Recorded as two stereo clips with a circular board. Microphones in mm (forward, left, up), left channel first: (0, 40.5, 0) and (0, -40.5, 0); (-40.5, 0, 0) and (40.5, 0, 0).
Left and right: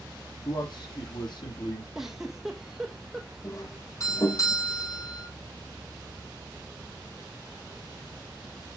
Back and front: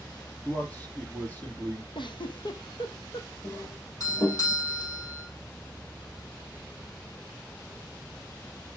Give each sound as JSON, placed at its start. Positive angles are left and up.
{"t": 0.5, "sound": "a man speaking", "azimuth_deg": 110, "distance_m": 4.5}
{"t": 1.9, "sound": "a giggle", "azimuth_deg": -175, "distance_m": 1.4}
{"t": 3.4, "sound": "a doorbell", "azimuth_deg": 135, "distance_m": 5.5}